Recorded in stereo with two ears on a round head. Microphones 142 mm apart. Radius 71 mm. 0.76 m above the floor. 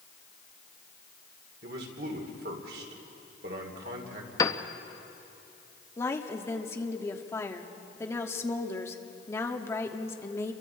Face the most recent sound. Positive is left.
turn(degrees=15)  # may be behind; listen again after turning